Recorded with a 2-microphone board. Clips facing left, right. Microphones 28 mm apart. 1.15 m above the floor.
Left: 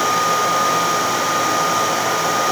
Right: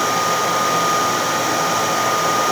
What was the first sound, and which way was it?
Only background noise.